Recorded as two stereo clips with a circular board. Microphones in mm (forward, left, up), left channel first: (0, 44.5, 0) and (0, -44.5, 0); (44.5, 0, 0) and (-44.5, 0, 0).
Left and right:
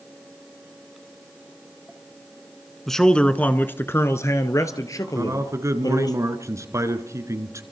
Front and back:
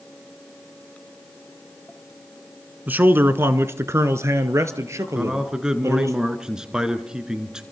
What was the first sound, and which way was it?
A man speaking, 175° left.